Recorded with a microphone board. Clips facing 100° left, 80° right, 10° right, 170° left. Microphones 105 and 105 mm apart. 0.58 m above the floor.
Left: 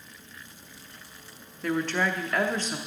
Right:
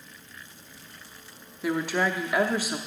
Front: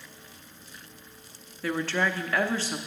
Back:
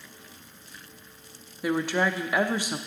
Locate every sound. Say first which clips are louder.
1.6 s a woman speaking: right 1 dB, back 2 dB; 135° right, 0.6 m